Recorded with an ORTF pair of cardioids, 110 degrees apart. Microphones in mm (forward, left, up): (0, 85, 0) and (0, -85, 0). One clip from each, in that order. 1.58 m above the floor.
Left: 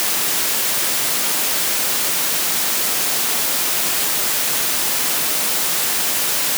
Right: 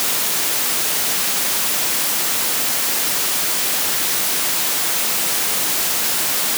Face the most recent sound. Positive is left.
No sound to turn to.